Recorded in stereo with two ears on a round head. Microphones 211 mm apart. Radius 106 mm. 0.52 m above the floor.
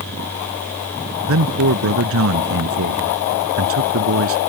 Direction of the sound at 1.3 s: 65° right (ahead or behind).